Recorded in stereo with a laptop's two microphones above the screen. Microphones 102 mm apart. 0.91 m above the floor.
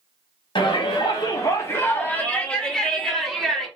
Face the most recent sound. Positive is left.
turn(degrees=0)  # may be behind; listen again after turning